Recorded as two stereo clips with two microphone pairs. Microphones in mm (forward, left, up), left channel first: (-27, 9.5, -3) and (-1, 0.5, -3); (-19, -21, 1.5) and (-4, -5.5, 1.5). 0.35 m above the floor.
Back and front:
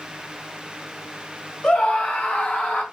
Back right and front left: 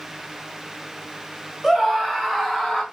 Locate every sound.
1.6 s a scream: 140° left, 2 m; by 2.8 s 155° left, 3.5 m